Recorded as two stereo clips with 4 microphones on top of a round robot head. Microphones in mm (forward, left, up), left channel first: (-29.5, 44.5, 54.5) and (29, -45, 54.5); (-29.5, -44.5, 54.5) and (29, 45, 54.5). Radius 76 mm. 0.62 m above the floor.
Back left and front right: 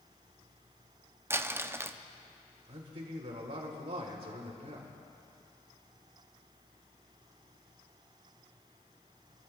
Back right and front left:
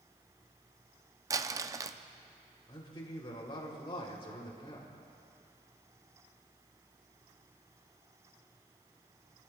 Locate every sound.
1.3 s crumpling: 5° left, 0.5 m
2.7 s a man speaking: 80° right, 2.5 m